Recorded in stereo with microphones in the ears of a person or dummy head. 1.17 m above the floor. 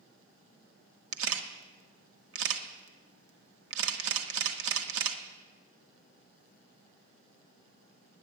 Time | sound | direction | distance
1.1 | a camera shutter | 80° right | 1.1 m